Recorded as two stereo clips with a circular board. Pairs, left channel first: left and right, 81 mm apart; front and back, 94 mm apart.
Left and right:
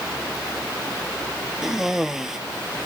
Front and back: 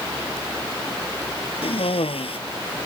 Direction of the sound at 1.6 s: 5° right.